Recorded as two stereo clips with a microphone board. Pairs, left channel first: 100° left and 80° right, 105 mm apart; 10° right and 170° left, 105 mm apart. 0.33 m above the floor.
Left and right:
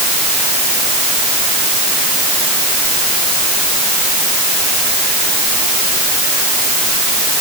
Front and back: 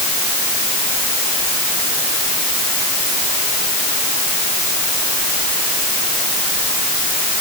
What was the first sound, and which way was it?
Only background noise.